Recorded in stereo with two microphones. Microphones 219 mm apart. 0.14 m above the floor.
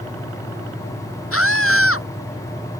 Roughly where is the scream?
Left.